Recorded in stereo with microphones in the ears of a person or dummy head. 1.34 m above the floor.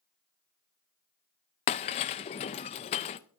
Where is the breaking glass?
35° left (ahead or behind), 0.6 m.